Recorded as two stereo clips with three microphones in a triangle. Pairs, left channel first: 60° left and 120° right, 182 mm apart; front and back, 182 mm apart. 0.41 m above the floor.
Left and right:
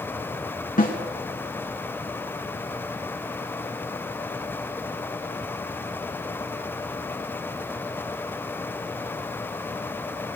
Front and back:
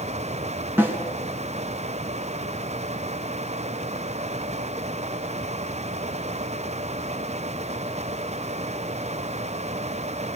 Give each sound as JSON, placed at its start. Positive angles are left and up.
{"t": 0.8, "sound": "a snare drum", "azimuth_deg": 100, "distance_m": 3.0}